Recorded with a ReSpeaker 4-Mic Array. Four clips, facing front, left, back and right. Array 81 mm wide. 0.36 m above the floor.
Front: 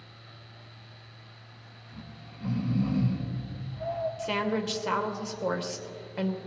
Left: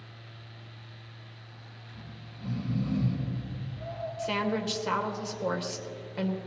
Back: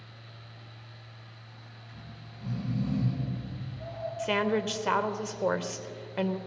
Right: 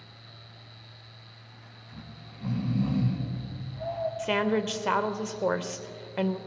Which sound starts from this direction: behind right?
A woman speaking, at 4.2 s.